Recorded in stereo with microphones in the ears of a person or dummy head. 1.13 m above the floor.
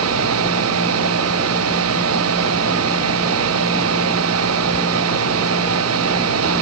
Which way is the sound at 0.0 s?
80° right.